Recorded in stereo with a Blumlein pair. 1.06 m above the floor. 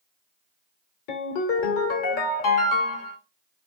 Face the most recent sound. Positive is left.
turn(degrees=45)